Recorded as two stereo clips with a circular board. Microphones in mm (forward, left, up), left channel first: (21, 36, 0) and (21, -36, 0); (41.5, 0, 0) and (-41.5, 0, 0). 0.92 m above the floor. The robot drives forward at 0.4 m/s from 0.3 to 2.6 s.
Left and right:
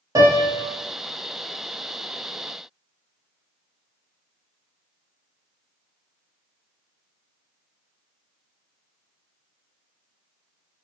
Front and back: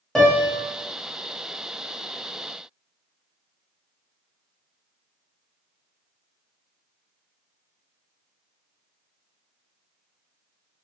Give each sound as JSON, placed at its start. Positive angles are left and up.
{"t": 0.1, "sound": "a piano", "azimuth_deg": -90, "distance_m": 1.0}